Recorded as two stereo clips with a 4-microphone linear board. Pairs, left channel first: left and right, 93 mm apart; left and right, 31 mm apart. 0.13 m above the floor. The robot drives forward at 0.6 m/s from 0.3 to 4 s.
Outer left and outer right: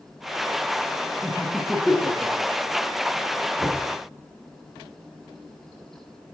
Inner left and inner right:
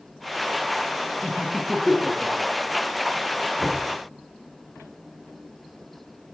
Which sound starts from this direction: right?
Knocking, at 3.6 s.